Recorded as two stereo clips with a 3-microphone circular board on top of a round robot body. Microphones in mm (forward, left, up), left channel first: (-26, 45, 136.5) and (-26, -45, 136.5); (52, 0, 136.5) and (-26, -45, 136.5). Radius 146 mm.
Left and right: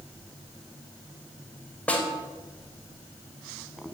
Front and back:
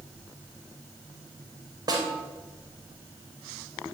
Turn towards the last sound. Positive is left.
turn(degrees=165)